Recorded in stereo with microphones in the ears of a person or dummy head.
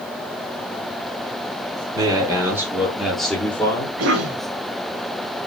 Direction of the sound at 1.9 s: 15° right (ahead or behind).